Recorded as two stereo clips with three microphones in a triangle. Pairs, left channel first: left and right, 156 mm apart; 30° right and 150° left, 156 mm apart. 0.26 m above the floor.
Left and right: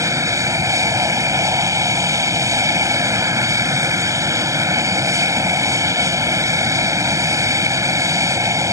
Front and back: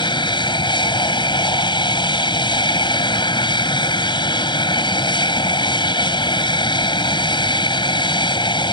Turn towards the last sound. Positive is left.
turn(degrees=-40)